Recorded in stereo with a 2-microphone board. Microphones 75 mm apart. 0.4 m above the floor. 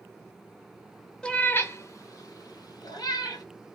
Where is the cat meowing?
10° left (ahead or behind), 0.6 m; by 3.4 s 65° left (ahead or behind), 1.5 m.